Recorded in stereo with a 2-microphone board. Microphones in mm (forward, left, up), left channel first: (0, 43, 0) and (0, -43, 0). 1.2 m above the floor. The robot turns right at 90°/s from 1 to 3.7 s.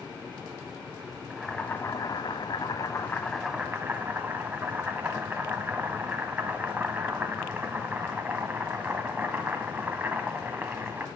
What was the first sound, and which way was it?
Boiling, 10° right.